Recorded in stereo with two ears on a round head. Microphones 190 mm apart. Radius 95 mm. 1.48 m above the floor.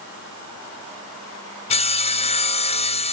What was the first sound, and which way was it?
Sawing, 30° left (ahead or behind).